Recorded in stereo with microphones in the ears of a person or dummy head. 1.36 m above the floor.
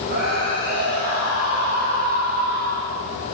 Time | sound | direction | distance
0.1 | a scream | 65° right (ahead or behind) | 6.5 m